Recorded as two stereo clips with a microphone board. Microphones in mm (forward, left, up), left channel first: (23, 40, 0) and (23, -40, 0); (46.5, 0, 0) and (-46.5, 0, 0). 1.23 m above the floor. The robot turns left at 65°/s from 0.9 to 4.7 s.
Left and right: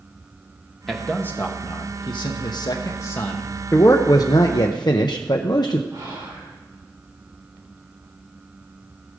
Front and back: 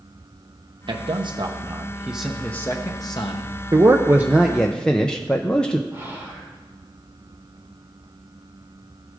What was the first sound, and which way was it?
A man speaking, straight behind.